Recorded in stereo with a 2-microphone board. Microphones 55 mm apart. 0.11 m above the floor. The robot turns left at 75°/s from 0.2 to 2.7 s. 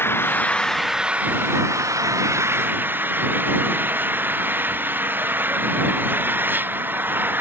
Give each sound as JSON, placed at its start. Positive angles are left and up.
{"t": 0.0, "sound": "an engine running", "azimuth_deg": 45}